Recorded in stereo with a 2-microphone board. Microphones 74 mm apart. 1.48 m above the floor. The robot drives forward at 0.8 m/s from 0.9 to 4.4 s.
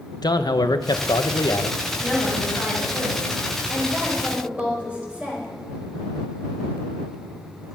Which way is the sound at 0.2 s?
65° left (ahead or behind).